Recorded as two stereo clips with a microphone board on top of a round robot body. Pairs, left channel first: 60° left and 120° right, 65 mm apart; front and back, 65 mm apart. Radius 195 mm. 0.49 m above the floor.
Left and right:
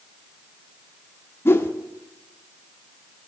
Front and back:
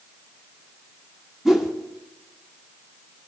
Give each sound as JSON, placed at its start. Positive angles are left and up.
{"t": 1.4, "sound": "a whoosh", "azimuth_deg": 95, "distance_m": 1.2}